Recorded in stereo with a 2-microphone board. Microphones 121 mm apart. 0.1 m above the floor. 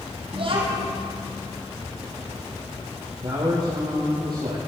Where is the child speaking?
50° right (ahead or behind), 2.5 m.